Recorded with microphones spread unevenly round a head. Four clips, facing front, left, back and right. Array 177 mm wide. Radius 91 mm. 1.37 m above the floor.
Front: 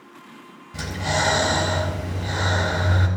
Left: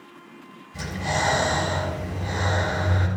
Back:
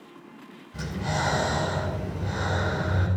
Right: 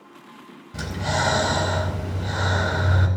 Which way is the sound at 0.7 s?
60° right.